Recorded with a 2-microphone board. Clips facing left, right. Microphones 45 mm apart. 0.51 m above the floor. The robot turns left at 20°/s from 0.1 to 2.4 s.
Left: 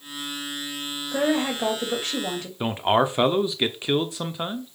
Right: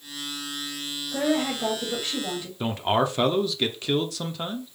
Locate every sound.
1.1 s a woman speaking: 40° left (ahead or behind), 2.5 m; by 2.5 s 60° left (ahead or behind), 2.5 m
2.6 s a man speaking: 20° left (ahead or behind), 0.8 m